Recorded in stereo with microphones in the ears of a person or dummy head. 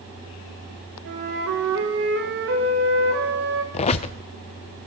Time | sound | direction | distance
1.1 | a flute | 60° right (ahead or behind) | 2 m
3.7 | a squeak | 30° left (ahead or behind) | 0.5 m